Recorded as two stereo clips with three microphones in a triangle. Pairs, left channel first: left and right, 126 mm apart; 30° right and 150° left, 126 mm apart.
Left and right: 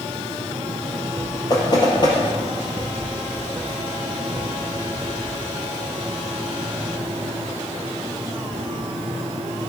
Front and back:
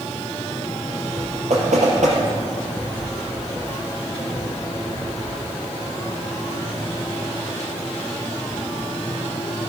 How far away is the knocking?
About 3 m.